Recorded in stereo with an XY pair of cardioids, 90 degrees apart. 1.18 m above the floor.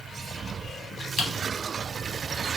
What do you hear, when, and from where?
1.2 s typing on a keyboard: 70° left, 0.9 m